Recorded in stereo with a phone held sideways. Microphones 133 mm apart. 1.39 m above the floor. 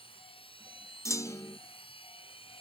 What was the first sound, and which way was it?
A machine running, 40° left (ahead or behind).